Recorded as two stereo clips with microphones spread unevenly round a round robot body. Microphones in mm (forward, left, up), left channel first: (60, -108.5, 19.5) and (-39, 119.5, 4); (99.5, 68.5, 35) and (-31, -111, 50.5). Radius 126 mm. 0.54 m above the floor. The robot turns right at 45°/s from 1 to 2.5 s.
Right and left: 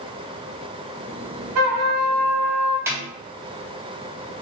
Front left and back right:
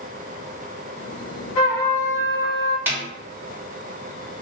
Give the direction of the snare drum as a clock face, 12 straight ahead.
7 o'clock.